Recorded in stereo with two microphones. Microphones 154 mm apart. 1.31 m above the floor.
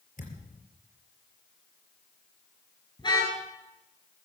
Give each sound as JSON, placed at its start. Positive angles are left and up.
{"t": 0.2, "sound": "a thud", "side_deg": 60, "distance_m": 4.0}
{"t": 3.0, "sound": "a car horn", "side_deg": 30, "distance_m": 7.5}